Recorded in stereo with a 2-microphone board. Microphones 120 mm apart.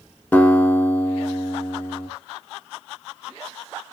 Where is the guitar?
15° left (ahead or behind), 0.9 m.